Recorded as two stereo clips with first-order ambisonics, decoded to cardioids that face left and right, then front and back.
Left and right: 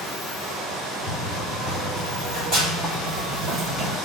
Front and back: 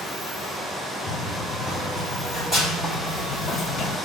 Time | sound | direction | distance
1.1 | running footsteps | 140° right | 2.5 m